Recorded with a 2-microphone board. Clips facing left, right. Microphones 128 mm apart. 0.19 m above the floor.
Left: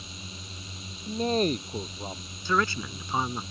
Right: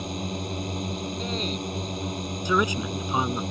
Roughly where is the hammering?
I don't hear hammering.